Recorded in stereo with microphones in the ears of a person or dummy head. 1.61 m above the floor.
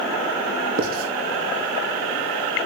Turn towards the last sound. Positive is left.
turn(degrees=-50)  # may be behind; listen again after turning